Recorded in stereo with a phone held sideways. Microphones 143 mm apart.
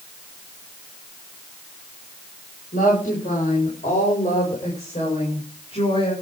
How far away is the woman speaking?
About 7 m.